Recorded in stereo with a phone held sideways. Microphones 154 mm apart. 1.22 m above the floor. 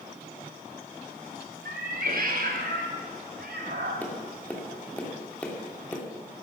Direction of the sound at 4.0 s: 10° left (ahead or behind).